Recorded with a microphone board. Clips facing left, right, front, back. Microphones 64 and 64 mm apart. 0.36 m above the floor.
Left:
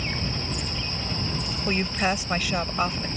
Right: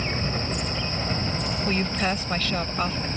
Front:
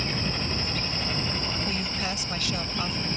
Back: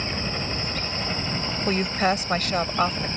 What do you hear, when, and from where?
0.0 s a helicopter: 115° right
1.7 s a woman speaking: 165° left